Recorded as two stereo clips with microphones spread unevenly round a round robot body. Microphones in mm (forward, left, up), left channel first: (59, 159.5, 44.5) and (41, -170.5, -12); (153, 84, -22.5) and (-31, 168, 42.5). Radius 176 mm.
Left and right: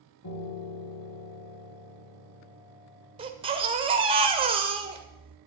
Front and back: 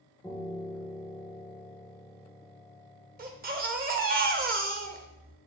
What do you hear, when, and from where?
0.2 s a piano: 55° left, 4.5 m
3.2 s a baby crying: 150° right, 0.9 m